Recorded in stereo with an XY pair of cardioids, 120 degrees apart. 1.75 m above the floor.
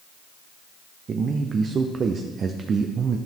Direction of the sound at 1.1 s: 40° right.